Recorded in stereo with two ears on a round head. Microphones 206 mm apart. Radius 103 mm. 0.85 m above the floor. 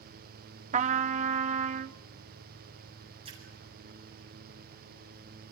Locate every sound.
0.7 s a trumpet: 30° right (ahead or behind), 0.6 m
3.2 s a splash: 25° right (ahead or behind), 7.5 m